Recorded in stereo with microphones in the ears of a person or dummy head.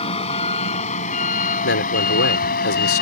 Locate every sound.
0.0 s a vehicle: 35° left (ahead or behind); by 3.0 s 55° left (ahead or behind)
1.6 s a man speaking: 65° left (ahead or behind)